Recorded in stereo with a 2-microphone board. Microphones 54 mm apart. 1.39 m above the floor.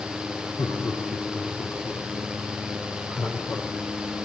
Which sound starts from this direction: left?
Laughter, at 0.6 s.